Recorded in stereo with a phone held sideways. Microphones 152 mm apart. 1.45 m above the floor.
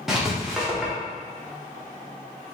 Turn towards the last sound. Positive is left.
turn(degrees=-5)  # may be behind; listen again after turning